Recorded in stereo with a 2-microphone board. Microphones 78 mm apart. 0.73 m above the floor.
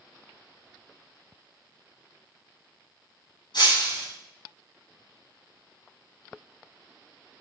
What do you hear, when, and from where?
3.5 s breaking glass: 85° left, 5 m